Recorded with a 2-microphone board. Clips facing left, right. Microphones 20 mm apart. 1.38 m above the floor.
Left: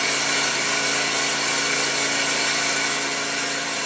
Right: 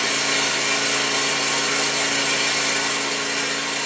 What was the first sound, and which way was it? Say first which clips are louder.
An engine running: right 1 dB; 35° right (ahead or behind).